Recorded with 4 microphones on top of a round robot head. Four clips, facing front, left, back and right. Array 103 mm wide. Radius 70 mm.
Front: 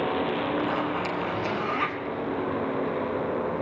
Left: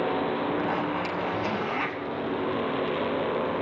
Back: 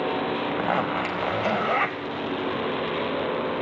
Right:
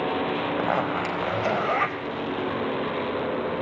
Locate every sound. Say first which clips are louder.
0.5 s a zipper: right 2 dB, back 2 dB; 135° right, 2.5 m